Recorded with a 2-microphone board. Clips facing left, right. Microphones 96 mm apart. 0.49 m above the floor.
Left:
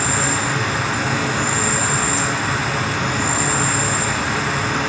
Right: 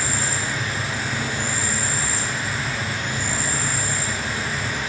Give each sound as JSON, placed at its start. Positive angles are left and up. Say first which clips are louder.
{"t": 0.0, "sound": "an insect", "louder": "left 6 dB", "side_deg": 80, "distance_m": 1.0}